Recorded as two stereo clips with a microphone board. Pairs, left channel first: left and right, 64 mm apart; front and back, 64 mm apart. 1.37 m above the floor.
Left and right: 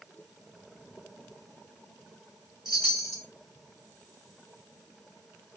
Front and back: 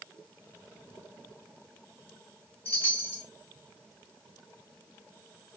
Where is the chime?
60° left, 1.8 m.